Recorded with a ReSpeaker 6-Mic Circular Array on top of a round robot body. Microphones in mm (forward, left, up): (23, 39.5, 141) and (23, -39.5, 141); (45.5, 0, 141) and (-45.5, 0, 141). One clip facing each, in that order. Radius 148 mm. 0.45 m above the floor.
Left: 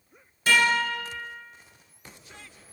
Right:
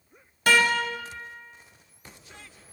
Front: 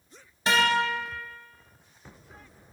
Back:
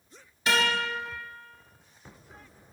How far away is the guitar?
About 0.7 m.